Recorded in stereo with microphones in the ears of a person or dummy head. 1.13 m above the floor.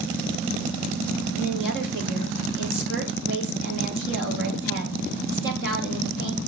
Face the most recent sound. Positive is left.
turn(degrees=-65)  # may be behind; listen again after turning